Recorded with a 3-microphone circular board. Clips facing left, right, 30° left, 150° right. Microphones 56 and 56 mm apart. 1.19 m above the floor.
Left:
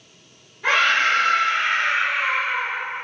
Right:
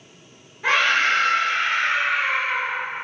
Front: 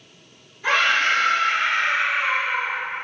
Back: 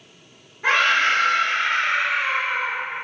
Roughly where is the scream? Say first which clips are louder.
Left 1 dB, back 1 dB; behind.